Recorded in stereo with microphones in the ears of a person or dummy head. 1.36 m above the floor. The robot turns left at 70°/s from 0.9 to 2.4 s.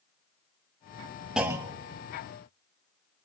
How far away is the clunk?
About 1.3 m.